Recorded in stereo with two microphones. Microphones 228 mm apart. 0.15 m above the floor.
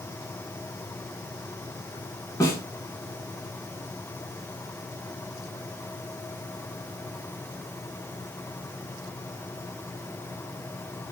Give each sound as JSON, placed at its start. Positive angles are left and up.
{"t": 2.4, "sound": "a snare drum", "side_deg": 15, "distance_m": 0.8}